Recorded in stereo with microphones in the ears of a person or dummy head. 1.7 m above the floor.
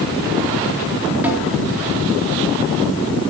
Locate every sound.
1.2 s a snare drum: 10° right (ahead or behind), 4 m